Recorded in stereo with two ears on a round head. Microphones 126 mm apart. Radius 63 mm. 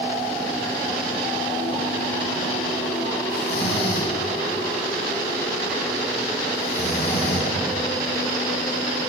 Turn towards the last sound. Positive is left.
turn(degrees=75)  # may be behind; listen again after turning